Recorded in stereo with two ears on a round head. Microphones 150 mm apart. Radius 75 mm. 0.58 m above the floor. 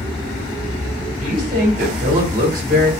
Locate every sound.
1.2 s a woman speaking: 45° right (ahead or behind), 1.6 m